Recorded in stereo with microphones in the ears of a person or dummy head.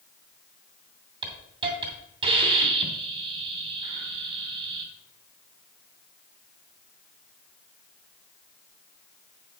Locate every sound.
1.2 s a hiss: 30° right (ahead or behind), 2.5 m